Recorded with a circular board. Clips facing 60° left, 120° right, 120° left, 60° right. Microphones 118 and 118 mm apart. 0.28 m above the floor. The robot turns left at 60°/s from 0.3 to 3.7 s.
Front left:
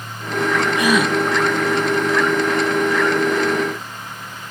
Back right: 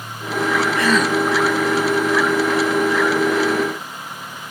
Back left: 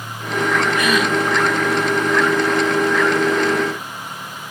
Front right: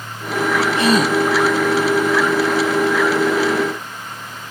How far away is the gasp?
About 0.9 m.